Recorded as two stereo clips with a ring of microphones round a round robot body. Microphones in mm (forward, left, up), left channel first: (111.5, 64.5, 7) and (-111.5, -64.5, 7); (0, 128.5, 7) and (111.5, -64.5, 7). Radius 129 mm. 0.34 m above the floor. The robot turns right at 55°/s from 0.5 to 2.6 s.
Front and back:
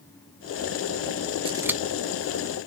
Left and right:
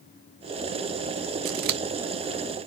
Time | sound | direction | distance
1.4 | scissors | 80° right | 0.6 m